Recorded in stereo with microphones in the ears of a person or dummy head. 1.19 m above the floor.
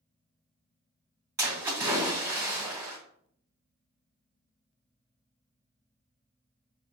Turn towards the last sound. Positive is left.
turn(degrees=-10)  # may be behind; listen again after turning